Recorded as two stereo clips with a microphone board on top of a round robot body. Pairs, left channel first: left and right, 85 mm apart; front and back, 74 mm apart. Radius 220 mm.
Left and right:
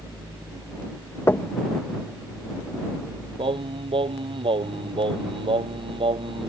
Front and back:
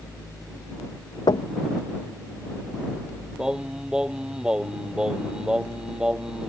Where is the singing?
100° right.